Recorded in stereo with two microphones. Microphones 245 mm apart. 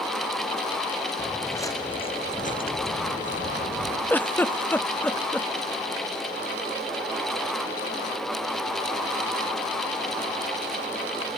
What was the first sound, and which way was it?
Footsteps, 5° left (ahead or behind).